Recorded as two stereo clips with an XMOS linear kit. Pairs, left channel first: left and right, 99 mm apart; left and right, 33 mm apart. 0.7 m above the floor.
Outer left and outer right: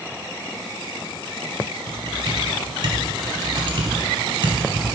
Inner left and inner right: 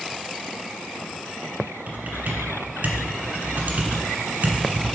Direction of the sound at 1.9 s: 65° right (ahead or behind).